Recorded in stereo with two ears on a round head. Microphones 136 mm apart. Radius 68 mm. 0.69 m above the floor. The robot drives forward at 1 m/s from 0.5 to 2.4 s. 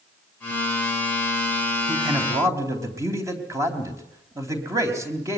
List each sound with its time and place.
1.9 s a man speaking: 15° right (ahead or behind), 4 m; by 5.4 s 20° right (ahead or behind), 3.5 m